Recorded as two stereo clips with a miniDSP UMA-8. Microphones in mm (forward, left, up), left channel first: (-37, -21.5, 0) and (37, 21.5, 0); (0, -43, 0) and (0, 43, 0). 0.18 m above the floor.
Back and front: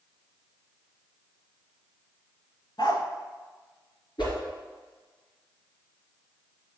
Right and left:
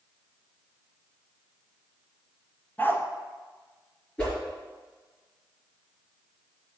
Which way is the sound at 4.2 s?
170° right.